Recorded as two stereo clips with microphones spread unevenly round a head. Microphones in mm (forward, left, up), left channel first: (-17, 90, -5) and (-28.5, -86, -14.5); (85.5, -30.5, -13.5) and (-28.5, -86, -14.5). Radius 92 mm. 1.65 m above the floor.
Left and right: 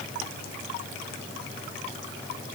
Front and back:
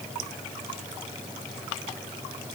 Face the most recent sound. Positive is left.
No sound to turn to.